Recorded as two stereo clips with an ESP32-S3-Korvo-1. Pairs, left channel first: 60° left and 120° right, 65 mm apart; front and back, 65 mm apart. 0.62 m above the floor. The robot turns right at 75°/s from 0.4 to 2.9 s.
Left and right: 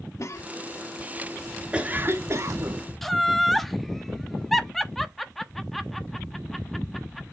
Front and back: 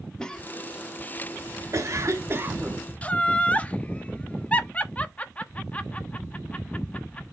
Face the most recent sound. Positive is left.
turn(degrees=-25)